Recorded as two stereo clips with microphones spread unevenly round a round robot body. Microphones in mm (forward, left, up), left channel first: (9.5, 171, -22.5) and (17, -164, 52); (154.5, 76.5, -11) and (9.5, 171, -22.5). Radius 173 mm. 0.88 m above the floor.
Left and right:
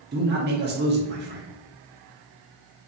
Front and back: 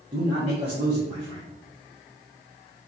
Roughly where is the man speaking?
Behind right.